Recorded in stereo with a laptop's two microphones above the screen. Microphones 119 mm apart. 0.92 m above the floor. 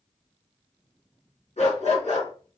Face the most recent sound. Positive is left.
turn(degrees=65)  # may be behind; listen again after turning